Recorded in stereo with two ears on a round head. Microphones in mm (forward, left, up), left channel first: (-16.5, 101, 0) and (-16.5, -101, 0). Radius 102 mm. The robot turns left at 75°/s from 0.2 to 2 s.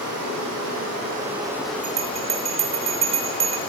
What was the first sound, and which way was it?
Running water, 70° right.